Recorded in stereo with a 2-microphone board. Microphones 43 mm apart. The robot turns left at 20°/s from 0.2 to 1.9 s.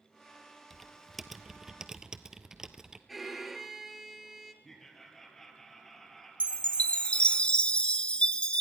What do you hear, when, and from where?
0.7 s typing on a keyboard: 5° left (ahead or behind), 0.8 m; by 3.0 s 15° right (ahead or behind), 0.8 m
3.1 s a violin: 5° right (ahead or behind), 1.4 m
4.6 s laughter: 10° left (ahead or behind), 3 m
6.4 s a chime: 25° left (ahead or behind), 0.6 m